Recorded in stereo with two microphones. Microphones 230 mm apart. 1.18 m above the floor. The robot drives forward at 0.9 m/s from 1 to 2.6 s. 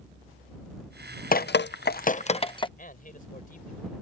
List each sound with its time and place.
1.3 s dripping: 40° left (ahead or behind); by 2.7 s 20° left (ahead or behind)
2.8 s a man speaking: 40° left (ahead or behind)